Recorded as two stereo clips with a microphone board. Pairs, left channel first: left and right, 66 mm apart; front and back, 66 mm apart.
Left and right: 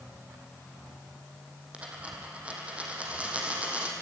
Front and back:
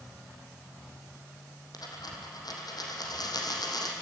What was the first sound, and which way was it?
A dropped coin, 20° right.